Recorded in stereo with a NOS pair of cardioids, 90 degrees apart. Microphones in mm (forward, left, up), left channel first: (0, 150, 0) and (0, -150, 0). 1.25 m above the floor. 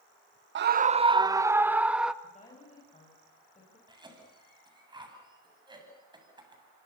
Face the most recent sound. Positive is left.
turn(degrees=-15)